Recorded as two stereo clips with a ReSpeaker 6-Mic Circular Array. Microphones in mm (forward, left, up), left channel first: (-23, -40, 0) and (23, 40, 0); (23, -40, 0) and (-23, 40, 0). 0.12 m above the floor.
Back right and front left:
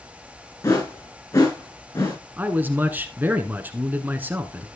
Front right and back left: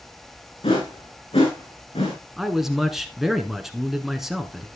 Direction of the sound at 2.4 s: 45° left.